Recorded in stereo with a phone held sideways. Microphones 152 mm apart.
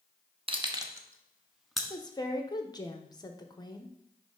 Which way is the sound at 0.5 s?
35° right (ahead or behind).